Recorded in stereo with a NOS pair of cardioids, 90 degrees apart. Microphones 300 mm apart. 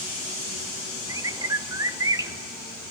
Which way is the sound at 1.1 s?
10° right.